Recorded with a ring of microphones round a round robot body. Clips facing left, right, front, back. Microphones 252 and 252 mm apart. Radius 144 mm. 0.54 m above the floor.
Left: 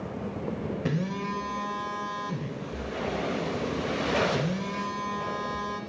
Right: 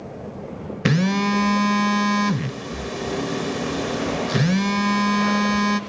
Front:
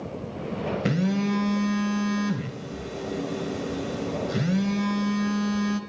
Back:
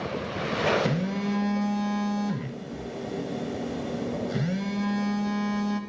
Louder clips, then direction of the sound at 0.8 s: Right 14 dB, front 3 dB; 85° right.